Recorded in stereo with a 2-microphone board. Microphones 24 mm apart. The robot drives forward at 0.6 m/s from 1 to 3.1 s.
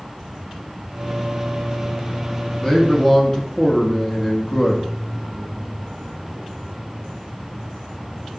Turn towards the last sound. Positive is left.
turn(degrees=25)  # may be behind; listen again after turning